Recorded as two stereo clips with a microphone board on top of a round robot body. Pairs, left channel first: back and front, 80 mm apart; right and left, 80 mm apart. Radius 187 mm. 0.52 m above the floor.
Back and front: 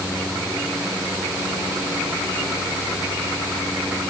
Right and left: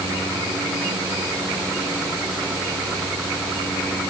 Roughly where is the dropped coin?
No dropped coin in this recording.